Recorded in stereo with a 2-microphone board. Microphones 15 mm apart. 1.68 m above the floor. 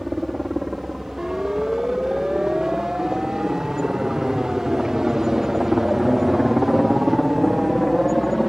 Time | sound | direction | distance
0.0 | a helicopter | 25° right (ahead or behind) | ?
1.2 | a siren | 30° right (ahead or behind) | ?